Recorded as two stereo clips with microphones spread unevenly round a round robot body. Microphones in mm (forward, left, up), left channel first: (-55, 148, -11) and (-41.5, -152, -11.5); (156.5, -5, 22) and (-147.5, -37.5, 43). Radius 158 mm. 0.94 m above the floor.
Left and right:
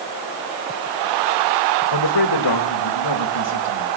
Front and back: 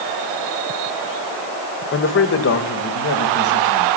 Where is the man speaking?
60° left, 3.5 m; by 3.9 s 55° left, 5 m.